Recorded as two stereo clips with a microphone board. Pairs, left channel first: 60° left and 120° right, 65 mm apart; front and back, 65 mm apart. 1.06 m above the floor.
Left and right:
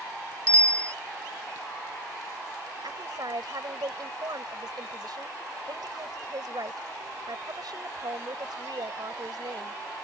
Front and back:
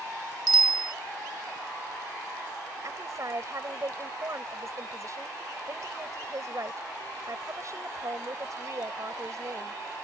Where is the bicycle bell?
10° right.